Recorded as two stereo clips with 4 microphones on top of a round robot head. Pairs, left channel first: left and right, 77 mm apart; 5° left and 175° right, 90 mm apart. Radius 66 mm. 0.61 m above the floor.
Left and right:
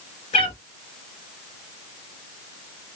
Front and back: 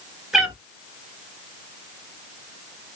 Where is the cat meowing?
100° left, 1.4 m.